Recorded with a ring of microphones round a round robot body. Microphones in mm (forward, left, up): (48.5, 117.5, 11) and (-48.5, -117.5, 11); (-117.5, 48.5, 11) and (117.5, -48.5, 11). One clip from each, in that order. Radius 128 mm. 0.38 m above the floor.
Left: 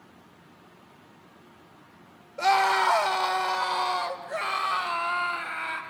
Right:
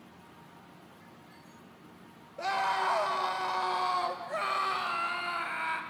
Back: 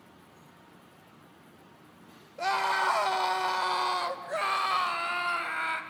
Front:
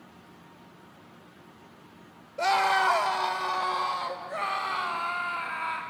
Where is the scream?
60° left, 1.2 m; by 5.8 s 155° left, 2 m.